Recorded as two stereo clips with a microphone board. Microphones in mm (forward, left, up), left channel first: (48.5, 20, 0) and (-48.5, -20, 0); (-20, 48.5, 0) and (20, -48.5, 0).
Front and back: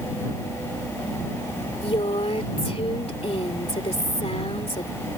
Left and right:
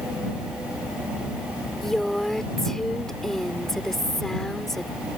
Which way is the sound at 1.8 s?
25° left.